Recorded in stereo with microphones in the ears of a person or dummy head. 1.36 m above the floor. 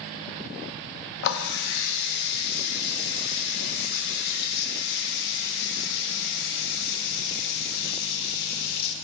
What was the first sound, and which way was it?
A running tap, 60° left (ahead or behind).